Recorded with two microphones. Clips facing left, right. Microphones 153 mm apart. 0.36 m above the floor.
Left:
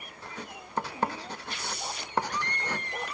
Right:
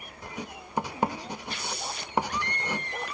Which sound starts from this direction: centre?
Writing, at 0.2 s.